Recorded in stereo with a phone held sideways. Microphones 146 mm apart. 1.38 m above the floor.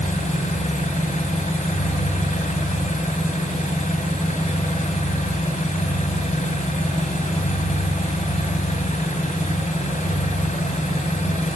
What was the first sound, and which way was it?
An engine running, 55° left (ahead or behind).